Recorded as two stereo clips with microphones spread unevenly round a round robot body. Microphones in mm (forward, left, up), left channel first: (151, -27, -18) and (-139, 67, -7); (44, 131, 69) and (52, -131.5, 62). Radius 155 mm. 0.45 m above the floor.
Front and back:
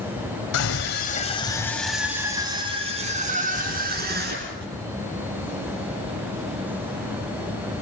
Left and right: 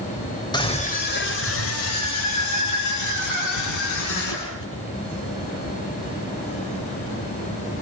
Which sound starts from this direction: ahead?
A scream, at 0.5 s.